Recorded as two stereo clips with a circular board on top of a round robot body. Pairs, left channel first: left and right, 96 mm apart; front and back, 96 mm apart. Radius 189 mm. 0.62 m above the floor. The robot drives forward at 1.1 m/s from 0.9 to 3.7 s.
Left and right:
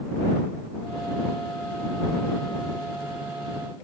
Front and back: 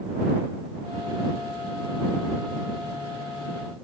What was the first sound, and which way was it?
Only background noise.